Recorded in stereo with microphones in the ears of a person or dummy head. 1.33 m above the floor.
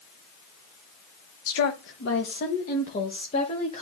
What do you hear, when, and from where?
1.5 s a woman speaking: 75° left (ahead or behind), 1.0 m; by 3.8 s 30° left (ahead or behind), 2 m